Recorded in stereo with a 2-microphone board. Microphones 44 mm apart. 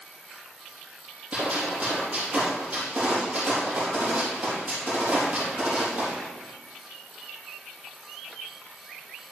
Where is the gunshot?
30° right (ahead or behind), 4.5 m.